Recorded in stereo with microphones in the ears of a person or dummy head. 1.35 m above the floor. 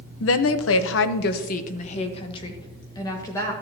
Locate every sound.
0.2 s a woman speaking: 70° left (ahead or behind), 0.9 m; by 3.5 s 20° left (ahead or behind), 1.9 m